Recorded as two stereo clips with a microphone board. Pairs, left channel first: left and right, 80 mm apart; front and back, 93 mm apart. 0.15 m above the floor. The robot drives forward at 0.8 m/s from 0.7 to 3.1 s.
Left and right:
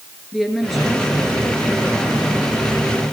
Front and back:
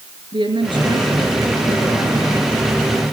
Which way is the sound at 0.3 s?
Straight behind.